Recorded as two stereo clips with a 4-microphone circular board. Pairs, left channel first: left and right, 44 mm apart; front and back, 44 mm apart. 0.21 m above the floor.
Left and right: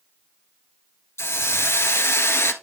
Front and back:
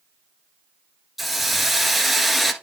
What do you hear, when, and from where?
1.2 s a hiss: 95° left, 1.1 m